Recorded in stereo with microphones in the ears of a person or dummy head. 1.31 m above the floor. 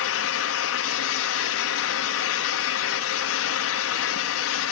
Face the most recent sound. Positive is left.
turn(degrees=70)  # may be behind; listen again after turning